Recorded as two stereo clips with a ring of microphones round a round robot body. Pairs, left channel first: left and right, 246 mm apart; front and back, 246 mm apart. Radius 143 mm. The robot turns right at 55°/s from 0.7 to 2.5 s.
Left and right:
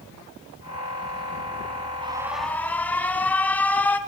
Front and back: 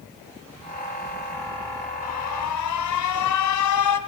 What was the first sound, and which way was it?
An alarm, 20° right.